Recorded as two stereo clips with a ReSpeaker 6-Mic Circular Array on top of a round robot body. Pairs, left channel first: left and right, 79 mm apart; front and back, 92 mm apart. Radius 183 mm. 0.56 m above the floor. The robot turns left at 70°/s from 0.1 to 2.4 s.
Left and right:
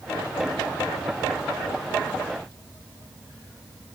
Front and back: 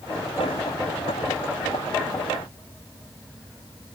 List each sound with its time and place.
Only background noise.